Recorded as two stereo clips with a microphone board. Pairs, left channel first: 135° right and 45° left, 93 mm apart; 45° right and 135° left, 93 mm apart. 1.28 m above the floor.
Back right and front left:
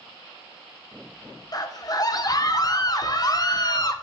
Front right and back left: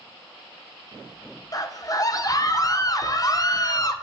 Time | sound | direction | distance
1.5 | a scream | 90° right | 1.2 m